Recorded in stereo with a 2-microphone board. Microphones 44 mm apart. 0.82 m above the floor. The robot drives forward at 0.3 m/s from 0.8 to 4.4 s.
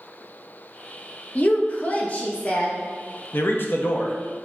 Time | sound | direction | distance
1.4 | a woman speaking | 35° left (ahead or behind) | 0.5 m
3.3 | a man speaking | 55° left (ahead or behind) | 0.6 m